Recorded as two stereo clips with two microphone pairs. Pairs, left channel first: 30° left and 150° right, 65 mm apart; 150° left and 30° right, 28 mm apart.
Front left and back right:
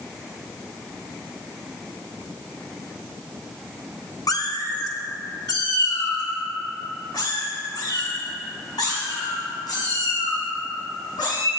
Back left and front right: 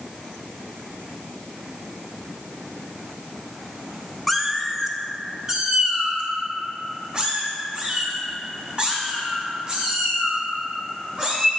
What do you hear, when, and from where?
4.3 s a cat meowing: 55° left, 0.7 m; by 11.5 s 25° left, 6 m